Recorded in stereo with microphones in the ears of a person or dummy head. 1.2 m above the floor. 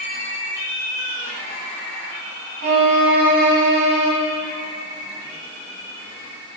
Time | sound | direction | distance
2.6 | a violin | 60° right (ahead or behind) | 1.4 m